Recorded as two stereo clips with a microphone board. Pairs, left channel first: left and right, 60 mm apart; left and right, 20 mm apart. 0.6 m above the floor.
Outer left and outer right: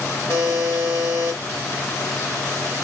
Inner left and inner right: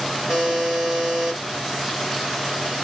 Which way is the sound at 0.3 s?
35° right (ahead or behind).